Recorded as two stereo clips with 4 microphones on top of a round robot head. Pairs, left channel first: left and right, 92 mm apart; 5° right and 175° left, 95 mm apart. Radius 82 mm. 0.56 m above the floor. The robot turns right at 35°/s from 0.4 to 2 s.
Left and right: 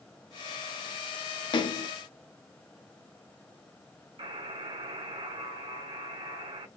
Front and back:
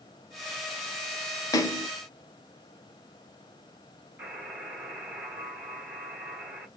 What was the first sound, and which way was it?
A splash, 45° left.